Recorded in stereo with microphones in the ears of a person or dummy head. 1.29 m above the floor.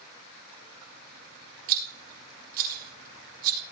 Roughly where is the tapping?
No tapping in this recording.